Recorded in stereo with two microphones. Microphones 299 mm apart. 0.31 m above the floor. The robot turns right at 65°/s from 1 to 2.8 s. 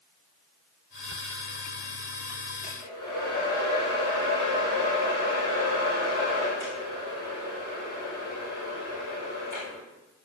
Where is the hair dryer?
90° left, 5.5 m; by 9.8 s 80° left, 5.5 m.